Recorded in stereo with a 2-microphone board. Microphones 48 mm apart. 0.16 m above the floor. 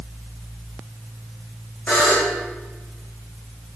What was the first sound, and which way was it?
A buzzer, 30° left (ahead or behind).